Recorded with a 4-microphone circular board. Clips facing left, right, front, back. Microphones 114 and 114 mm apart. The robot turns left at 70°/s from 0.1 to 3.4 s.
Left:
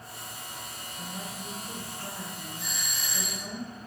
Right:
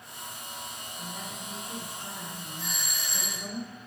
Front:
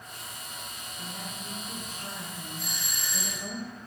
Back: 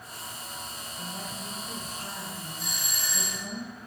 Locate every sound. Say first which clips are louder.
1.0 s a woman speaking: left 2 dB, back 2 dB; 165° left, 1.4 m; by 3.6 s 5° right, 1.4 m
2.6 s a doorbell: even, back 1 dB; 15° left, 3 m; by 3.5 s 45° right, 3 m